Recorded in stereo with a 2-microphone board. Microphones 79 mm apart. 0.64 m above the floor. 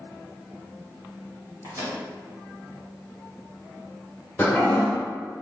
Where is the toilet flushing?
25° left (ahead or behind), 1.3 m.